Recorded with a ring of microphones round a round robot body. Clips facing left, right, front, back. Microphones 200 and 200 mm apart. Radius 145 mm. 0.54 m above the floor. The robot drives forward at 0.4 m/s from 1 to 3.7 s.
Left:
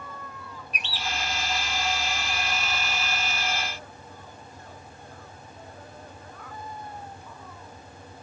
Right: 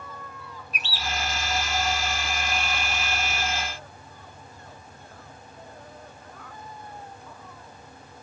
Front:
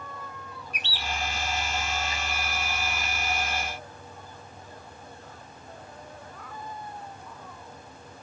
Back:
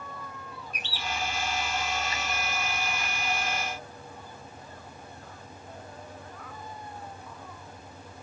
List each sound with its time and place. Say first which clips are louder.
0.7 s a bird: right 1 dB, front 1 dB; 15° left, 3 m